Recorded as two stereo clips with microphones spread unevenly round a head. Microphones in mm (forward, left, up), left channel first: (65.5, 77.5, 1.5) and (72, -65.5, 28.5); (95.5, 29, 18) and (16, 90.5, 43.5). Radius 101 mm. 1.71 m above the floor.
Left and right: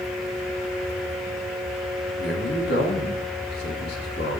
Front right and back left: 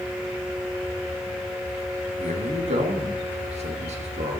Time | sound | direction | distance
2.2 | a man speaking | 135° left | 3 m